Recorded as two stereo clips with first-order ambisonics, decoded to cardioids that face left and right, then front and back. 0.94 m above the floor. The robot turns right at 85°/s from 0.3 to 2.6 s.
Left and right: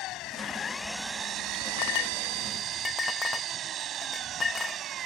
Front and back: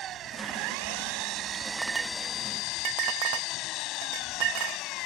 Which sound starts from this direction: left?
A clink, at 1.8 s.